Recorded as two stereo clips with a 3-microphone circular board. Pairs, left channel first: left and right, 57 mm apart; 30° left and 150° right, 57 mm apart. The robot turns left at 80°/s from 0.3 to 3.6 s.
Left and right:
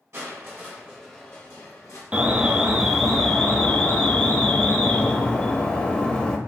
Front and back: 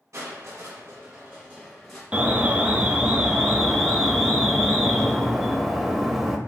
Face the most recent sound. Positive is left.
turn(degrees=125)